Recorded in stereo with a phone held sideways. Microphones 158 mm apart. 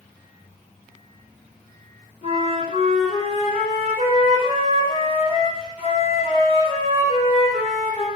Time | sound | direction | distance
2.2 | a flute | 45° left (ahead or behind) | 4.5 m